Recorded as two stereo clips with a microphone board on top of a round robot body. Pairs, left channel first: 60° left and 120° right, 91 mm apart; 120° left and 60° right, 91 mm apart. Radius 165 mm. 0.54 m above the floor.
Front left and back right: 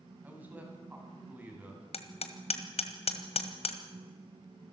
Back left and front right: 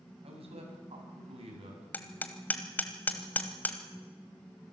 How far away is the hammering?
About 1.5 m.